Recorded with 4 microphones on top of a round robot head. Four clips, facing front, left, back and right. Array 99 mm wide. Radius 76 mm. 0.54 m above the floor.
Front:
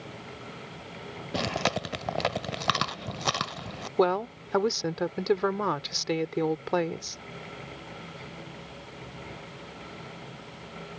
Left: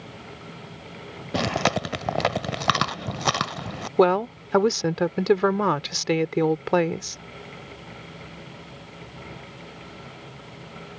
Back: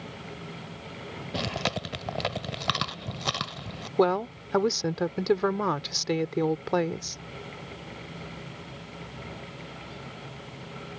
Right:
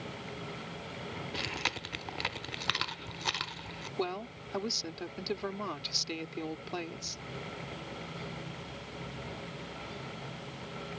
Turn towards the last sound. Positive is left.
turn(degrees=95)